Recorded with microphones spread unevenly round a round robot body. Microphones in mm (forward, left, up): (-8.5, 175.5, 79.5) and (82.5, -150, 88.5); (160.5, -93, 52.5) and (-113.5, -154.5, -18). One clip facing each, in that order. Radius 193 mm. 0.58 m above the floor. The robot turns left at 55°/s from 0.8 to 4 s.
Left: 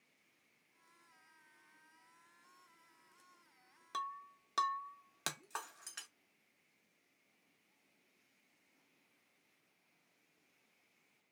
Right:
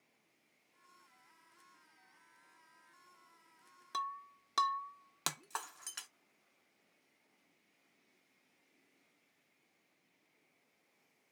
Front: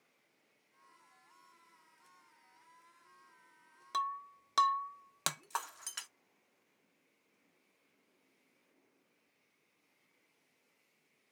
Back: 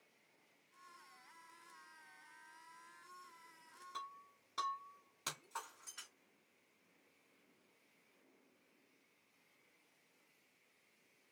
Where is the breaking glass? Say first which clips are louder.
Right 2 dB, front 14 dB; 10° left, 0.7 m; by 6.1 s 5° left, 0.7 m.